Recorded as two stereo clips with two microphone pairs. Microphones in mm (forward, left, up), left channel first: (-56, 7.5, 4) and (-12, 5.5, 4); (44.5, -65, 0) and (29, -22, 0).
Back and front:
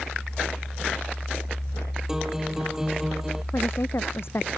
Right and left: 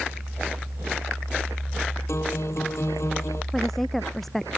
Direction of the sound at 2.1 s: 80° right.